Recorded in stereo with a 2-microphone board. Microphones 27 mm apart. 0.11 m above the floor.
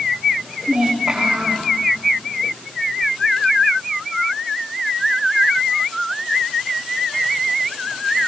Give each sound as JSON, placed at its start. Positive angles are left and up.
{"t": 0.7, "sound": "a child speaking", "side_deg": -20, "distance_m": 6.0}